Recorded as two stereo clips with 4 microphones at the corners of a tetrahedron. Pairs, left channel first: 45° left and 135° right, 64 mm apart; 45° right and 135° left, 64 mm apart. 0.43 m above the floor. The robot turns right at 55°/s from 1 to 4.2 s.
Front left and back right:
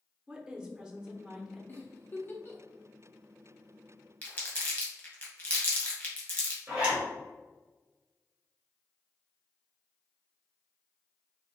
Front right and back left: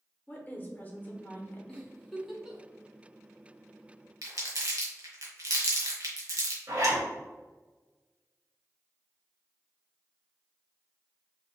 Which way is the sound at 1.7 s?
20° left.